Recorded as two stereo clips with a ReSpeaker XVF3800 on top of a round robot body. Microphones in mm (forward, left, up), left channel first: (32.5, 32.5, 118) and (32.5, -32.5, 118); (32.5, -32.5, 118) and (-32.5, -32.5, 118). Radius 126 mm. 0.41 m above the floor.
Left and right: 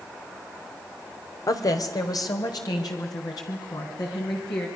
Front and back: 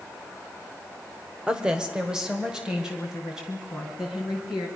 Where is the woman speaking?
105° left, 1.6 m; by 4.7 s 100° left, 5.5 m.